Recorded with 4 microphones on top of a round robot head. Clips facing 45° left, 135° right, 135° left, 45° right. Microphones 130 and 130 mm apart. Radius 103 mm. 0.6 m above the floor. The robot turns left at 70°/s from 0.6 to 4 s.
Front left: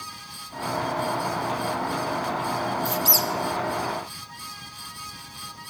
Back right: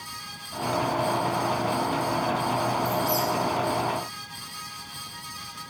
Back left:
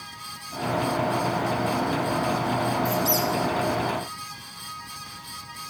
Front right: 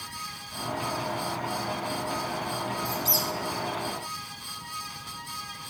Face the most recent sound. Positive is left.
turn(degrees=-15)